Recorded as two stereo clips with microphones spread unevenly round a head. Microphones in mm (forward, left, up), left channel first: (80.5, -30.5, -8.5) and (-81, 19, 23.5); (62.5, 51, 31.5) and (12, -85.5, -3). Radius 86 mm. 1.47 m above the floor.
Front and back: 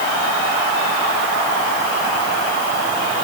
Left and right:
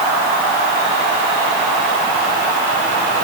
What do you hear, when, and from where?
Only background noise.